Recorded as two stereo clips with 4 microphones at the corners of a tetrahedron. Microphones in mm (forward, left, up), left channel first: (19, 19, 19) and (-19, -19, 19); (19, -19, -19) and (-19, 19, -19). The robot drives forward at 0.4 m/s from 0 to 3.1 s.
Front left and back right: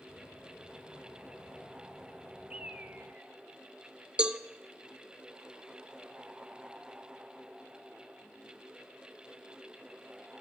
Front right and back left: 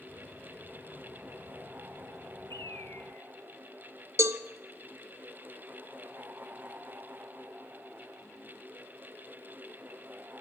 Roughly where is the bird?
Ahead right.